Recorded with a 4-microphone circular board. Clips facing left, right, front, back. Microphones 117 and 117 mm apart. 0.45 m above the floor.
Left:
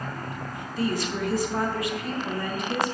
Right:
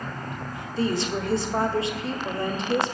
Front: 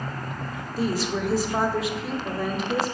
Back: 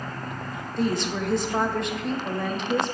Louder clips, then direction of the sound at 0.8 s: Right 2 dB, even; 80° right.